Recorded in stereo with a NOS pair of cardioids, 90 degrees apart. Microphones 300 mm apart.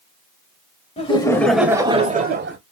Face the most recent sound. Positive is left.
turn(degrees=-40)